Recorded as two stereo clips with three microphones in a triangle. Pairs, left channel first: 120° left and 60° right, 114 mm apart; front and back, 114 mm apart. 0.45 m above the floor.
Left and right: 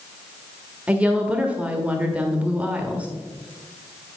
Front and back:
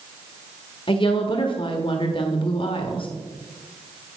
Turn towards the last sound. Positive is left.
turn(degrees=15)